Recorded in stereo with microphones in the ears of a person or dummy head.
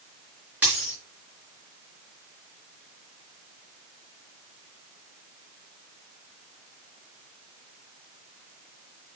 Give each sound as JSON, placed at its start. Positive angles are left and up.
{"t": 0.6, "sound": "a dropped coin", "side_deg": -10, "distance_m": 4.0}